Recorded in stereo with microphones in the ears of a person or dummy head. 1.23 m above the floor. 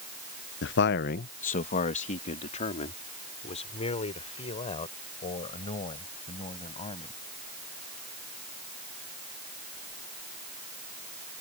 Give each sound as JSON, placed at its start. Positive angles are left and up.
{"t": 0.6, "sound": "a man speaking", "side_deg": 55}